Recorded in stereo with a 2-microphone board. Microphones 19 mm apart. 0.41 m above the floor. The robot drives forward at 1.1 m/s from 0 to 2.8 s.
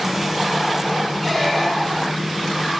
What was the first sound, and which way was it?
A squeak, 5° right (ahead or behind).